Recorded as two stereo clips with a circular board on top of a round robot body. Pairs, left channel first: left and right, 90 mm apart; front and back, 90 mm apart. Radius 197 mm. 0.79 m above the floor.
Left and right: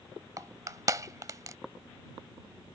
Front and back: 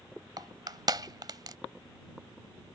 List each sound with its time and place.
0.4 s crushing: 140° right